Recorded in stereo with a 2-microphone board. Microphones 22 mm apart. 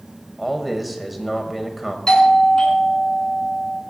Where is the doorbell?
30° left (ahead or behind), 3.5 m.